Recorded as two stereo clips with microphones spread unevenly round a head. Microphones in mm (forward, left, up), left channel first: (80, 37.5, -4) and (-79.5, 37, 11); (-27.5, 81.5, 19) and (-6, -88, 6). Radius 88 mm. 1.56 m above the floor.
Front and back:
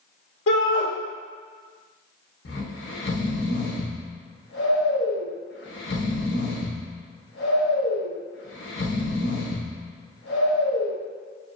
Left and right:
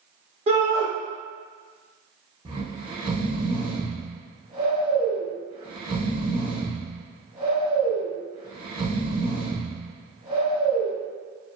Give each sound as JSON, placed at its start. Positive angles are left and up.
{"t": 0.5, "sound": "a shout", "azimuth_deg": -25, "distance_m": 0.6}
{"t": 2.5, "sound": "snoring", "azimuth_deg": -15, "distance_m": 0.7}